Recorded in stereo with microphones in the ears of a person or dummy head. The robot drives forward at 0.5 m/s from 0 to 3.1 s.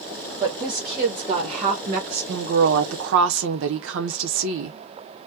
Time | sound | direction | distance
0.4 | a woman speaking | 25° right (ahead or behind) | 1.4 m